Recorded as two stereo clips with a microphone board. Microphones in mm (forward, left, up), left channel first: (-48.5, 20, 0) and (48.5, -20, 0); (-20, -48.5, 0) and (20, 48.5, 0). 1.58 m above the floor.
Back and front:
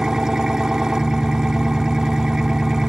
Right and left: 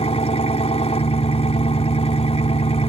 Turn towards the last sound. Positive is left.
turn(degrees=-105)